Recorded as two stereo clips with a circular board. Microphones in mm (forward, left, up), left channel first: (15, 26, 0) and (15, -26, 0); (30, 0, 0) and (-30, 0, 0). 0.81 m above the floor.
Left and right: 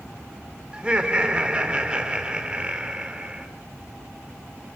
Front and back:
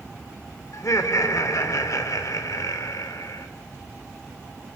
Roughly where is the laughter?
Ahead.